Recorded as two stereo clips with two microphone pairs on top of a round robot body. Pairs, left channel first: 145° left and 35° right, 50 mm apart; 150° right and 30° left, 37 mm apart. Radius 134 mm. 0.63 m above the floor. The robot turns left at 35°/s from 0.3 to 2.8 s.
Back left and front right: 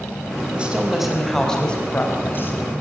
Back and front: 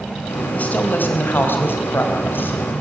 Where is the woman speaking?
105° right, 4 m; by 2.6 s 175° right, 4 m.